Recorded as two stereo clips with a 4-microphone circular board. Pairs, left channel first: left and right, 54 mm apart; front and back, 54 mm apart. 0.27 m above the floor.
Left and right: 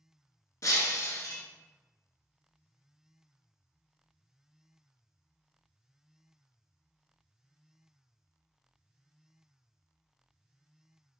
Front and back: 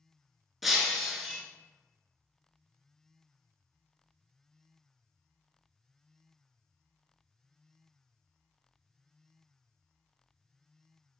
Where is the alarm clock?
I don't hear an alarm clock.